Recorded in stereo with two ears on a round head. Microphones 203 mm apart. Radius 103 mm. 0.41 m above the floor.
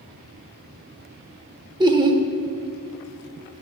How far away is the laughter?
About 0.8 m.